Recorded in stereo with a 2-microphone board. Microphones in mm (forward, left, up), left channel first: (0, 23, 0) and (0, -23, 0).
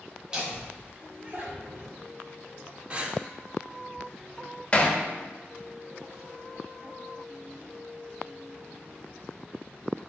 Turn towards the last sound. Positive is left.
turn(degrees=25)  # may be behind; listen again after turning